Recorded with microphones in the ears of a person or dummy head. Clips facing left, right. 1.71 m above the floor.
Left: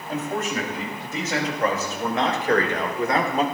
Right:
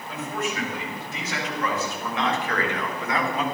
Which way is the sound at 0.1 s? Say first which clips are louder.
Left 3 dB; 40° left (ahead or behind).